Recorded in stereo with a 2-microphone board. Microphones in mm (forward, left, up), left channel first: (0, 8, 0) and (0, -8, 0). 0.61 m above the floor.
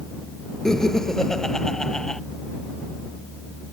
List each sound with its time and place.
0.7 s laughter: 40° left (ahead or behind)